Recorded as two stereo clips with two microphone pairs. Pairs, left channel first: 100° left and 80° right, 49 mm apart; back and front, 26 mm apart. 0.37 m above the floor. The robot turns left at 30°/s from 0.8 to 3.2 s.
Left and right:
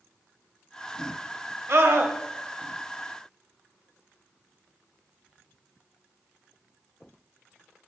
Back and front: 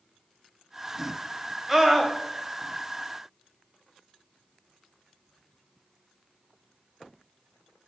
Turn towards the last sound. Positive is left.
turn(degrees=-120)